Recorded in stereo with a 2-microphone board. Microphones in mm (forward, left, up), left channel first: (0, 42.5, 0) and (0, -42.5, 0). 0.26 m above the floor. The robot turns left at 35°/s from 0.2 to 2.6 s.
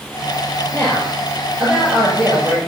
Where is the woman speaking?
30° left, 6 m; by 2.6 s 35° right, 6 m.